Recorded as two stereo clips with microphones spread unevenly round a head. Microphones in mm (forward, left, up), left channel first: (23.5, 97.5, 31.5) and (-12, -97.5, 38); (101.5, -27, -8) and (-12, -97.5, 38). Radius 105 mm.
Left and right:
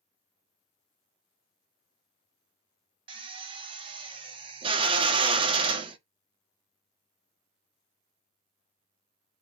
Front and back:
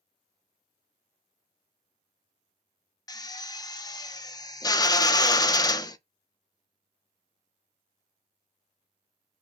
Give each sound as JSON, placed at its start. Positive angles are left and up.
{"t": 3.1, "sound": "a drill", "azimuth_deg": -35, "distance_m": 0.5}